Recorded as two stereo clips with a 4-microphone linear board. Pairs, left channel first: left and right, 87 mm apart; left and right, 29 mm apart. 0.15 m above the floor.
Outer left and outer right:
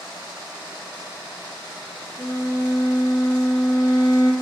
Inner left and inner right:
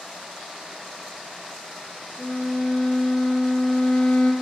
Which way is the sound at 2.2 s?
45° left (ahead or behind).